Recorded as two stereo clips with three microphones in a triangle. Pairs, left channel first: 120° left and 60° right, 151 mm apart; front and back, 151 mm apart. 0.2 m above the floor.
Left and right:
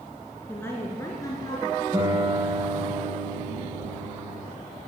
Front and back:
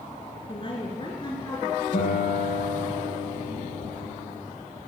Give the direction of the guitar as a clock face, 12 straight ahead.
12 o'clock.